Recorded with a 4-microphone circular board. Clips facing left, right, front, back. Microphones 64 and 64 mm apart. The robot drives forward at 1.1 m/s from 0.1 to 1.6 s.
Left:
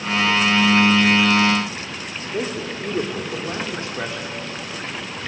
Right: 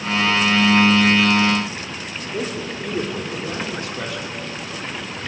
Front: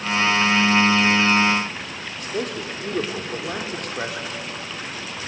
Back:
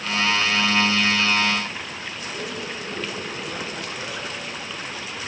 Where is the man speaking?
30° left, 3 m.